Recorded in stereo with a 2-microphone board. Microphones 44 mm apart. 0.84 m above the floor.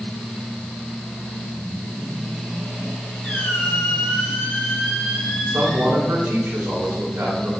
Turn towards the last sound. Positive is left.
turn(degrees=-50)  # may be behind; listen again after turning